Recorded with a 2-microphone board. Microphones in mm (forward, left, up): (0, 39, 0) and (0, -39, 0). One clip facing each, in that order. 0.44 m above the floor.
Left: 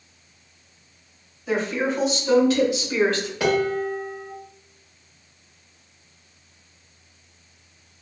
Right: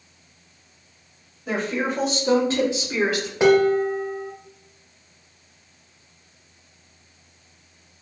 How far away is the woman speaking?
About 1.5 m.